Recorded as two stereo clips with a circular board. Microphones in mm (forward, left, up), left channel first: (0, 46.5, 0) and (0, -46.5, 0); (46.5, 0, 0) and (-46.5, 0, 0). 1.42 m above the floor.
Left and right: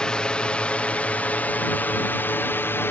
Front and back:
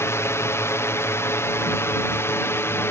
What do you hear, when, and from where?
0.0 s a drone: 20° left; by 2.9 s 40° left